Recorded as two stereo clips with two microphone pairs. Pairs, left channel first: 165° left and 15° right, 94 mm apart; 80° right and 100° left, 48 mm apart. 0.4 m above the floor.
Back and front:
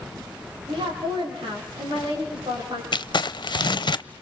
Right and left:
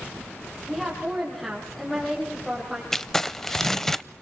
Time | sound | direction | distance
0.7 | a woman speaking | 5° left | 9.5 m
2.9 | crumpling | 160° right | 0.6 m